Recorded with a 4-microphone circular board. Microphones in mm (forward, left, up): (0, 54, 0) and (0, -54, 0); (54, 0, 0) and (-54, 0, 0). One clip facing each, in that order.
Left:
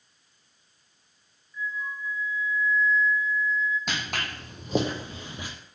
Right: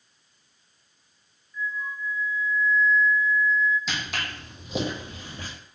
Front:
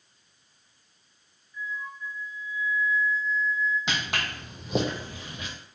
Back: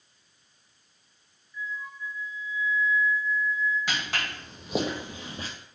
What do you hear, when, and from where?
1.5 s a flute: 15° left, 0.7 m
3.9 s footsteps: 65° left, 1.0 m; by 5.5 s 160° left, 0.6 m